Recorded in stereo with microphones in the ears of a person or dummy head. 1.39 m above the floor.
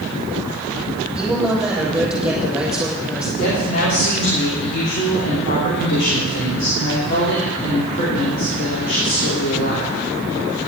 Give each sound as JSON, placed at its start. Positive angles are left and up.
{"t": 1.1, "sound": "a woman speaking", "side_deg": -5, "distance_m": 6.5}
{"t": 3.4, "sound": "a woman speaking", "side_deg": 60, "distance_m": 3.5}